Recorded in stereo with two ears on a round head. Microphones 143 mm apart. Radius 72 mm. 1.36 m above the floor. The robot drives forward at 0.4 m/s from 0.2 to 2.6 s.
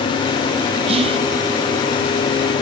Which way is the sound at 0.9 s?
40° right (ahead or behind).